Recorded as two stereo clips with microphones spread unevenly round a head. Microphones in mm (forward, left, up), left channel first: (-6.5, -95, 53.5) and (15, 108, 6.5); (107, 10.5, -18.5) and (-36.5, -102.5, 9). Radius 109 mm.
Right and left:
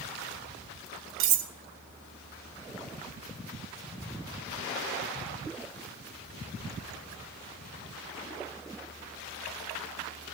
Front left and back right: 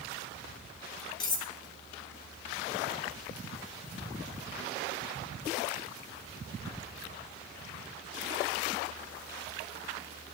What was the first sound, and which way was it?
Cutlery clinking, 110° left.